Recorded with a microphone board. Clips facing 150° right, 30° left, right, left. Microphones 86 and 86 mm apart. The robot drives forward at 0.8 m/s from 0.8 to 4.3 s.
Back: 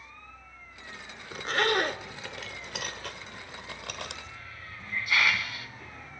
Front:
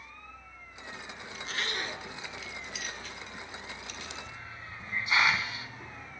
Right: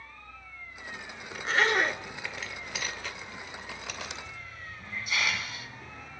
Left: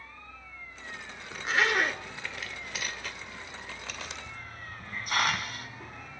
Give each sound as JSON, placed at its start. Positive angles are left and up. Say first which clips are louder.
{"t": 1.3, "sound": "a zipper", "louder": "back 11 dB, right 1 dB", "azimuth_deg": 180, "distance_m": 1.0}
{"t": 4.3, "sound": "a hiss", "louder": "front 1 dB, left 1 dB", "azimuth_deg": 85, "distance_m": 1.9}